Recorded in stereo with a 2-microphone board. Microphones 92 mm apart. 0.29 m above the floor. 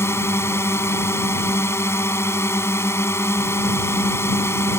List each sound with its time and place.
0.0 s a drone: 30° left (ahead or behind)